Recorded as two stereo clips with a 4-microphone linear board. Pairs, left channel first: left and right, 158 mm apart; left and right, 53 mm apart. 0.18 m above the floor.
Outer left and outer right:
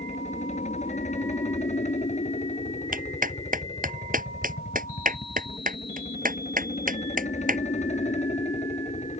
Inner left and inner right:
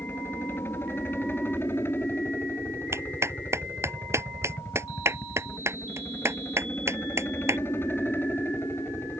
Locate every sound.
0.0 s a helicopter: 45° left (ahead or behind)
2.9 s a clap: 60° right (ahead or behind)